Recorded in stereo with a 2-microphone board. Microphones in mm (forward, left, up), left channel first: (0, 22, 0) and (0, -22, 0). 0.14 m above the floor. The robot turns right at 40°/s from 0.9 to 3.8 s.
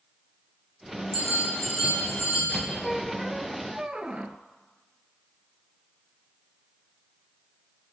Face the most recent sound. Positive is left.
turn(degrees=-150)